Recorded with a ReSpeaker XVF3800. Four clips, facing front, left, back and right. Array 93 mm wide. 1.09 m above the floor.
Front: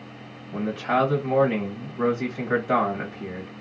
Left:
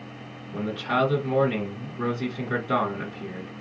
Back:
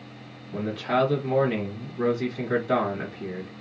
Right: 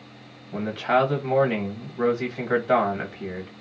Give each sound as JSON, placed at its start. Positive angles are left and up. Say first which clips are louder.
{"t": 0.5, "sound": "a man speaking", "louder": "right 4 dB, front 1 dB", "azimuth_deg": -65, "distance_m": 1.3}